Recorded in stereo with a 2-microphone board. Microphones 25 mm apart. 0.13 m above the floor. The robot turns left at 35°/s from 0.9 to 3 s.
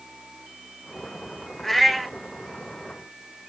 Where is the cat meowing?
15° left (ahead or behind), 1.3 m; by 2.1 s centre (ahead or behind), 1.3 m.